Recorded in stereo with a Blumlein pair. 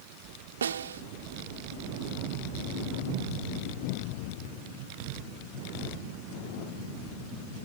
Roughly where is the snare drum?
Ahead right.